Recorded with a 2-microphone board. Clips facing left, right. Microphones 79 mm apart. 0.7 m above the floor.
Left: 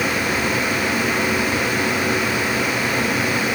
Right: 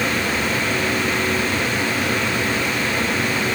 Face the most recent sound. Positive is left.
No sound to turn to.